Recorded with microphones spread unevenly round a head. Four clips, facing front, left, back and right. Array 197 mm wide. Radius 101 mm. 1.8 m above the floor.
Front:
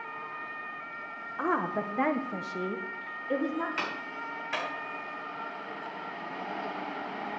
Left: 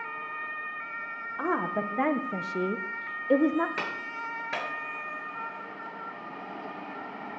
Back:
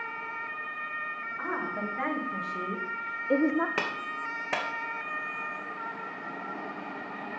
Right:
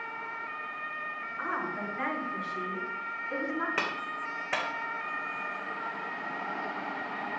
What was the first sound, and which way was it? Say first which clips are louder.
A woman speaking: left 6 dB, front 5 dB; 40° left.